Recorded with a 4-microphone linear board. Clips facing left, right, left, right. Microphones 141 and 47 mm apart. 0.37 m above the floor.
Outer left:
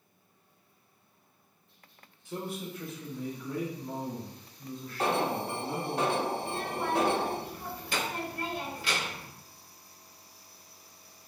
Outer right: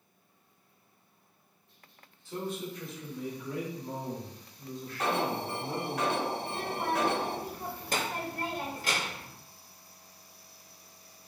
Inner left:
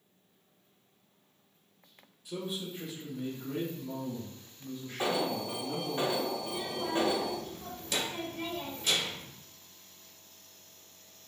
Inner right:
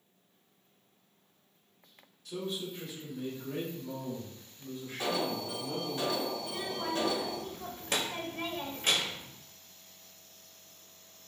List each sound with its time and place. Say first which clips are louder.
2.2 s a man speaking: outer right 1 dB, even; 15° left (ahead or behind), 1.5 m; by 6.0 s 40° right (ahead or behind), 3 m
5.0 s an alarm: outer left 2 dB, inner left 2 dB; 30° left (ahead or behind), 0.6 m
6.4 s a child speaking: outer left 1 dB, inner left 1 dB; 45° right (ahead or behind), 0.8 m